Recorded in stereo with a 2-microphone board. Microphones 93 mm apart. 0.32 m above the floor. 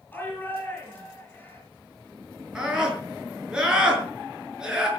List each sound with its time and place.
0.1 s a shout: 20° left (ahead or behind), 6 m
2.5 s a scream: 10° right (ahead or behind), 6 m